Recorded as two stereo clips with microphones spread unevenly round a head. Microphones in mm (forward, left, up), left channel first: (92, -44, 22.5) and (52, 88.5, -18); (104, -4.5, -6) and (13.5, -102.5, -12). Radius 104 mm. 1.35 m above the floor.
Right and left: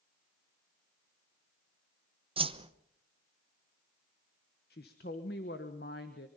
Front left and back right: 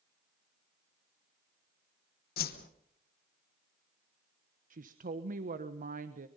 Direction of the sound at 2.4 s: 60° left.